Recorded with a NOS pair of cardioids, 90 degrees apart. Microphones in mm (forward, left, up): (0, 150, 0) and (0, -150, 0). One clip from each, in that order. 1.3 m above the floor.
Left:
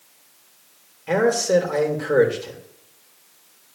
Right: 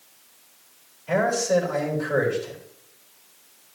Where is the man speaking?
65° left, 3 m.